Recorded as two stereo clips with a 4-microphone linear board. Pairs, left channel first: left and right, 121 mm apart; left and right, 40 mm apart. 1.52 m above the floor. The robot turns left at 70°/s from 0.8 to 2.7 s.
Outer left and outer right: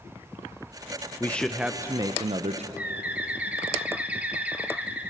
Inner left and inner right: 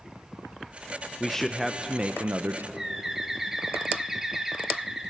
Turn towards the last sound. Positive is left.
turn(degrees=-15)  # may be behind; listen again after turning